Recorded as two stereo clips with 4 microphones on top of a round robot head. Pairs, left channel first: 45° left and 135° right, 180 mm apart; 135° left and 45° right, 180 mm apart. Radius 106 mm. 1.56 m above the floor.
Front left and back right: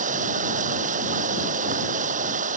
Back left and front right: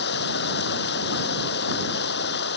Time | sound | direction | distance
0.0 | running water | 170° left | ?